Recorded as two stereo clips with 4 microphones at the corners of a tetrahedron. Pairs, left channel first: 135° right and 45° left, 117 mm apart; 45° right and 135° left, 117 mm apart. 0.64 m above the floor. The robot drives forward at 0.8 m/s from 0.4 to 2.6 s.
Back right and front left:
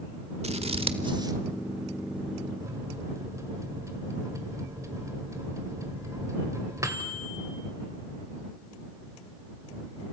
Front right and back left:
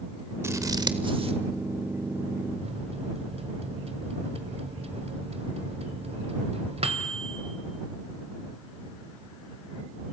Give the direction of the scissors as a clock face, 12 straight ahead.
10 o'clock.